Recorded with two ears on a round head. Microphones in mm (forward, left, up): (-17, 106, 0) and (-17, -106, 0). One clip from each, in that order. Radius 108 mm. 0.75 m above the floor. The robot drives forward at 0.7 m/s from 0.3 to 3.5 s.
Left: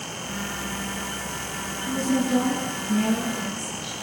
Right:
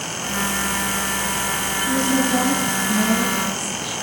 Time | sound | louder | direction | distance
1.9 | a woman speaking | right 3 dB | 10° left (ahead or behind) | 8 m